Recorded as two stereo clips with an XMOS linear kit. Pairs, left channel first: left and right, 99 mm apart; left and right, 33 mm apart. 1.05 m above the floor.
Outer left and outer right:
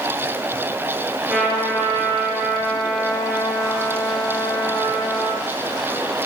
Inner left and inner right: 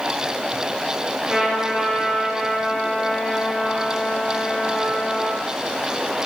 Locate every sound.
1.3 s a trumpet: 25° right (ahead or behind), 5 m